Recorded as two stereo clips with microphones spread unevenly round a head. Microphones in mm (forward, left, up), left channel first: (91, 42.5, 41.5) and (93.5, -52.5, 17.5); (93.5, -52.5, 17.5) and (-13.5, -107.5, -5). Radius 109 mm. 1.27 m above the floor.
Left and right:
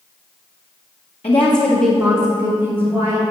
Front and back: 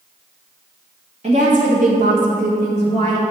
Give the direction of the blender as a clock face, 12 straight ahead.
No blender in this recording.